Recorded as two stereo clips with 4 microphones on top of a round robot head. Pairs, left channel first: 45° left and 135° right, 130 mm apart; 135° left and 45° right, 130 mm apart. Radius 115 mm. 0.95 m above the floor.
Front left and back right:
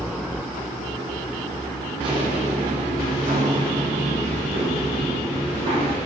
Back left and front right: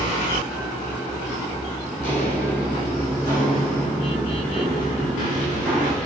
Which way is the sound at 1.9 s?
165° left.